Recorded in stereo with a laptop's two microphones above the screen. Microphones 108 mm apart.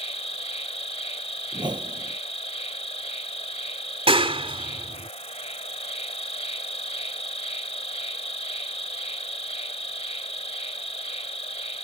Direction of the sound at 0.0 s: 75° left (ahead or behind).